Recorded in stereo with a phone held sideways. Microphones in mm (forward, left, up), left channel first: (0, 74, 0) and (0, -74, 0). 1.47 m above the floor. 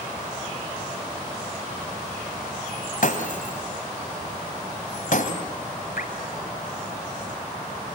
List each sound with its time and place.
3.0 s breaking glass: 65° left (ahead or behind), 2.5 m
6.0 s dripping: 80° left, 4 m